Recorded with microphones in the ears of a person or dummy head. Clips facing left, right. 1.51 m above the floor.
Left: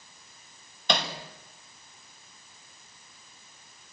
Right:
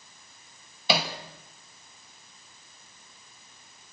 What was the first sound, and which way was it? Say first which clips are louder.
Hammering: right 2 dB; 5° right (ahead or behind).